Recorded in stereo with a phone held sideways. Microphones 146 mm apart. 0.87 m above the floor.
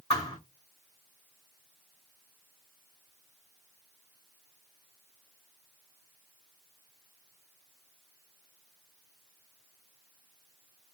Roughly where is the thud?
Left.